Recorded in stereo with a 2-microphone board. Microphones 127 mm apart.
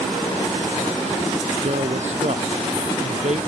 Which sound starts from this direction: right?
A man speaking, at 1.6 s.